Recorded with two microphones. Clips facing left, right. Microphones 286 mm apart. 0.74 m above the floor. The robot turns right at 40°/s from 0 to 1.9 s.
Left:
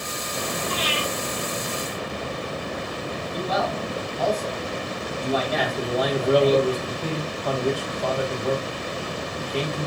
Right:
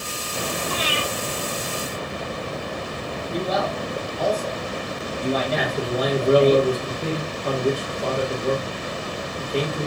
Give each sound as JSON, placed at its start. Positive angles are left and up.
{"t": 0.7, "sound": "breathing", "side_deg": -65, "distance_m": 2.5}
{"t": 3.3, "sound": "a man speaking", "side_deg": -45, "distance_m": 1.6}
{"t": 5.6, "sound": "a man speaking", "side_deg": -45, "distance_m": 1.7}